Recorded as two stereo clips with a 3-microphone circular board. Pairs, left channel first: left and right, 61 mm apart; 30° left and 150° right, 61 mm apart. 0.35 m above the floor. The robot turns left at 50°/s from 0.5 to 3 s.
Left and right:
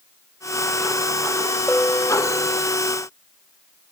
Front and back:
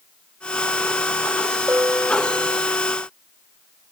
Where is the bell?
165° left; by 2.6 s 120° left.